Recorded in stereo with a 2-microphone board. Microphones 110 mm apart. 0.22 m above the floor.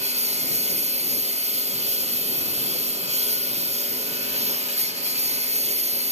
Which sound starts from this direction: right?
A lawn mower, at 0.0 s.